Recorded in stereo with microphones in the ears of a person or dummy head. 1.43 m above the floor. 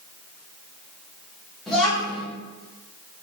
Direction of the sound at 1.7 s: 5° left (ahead or behind).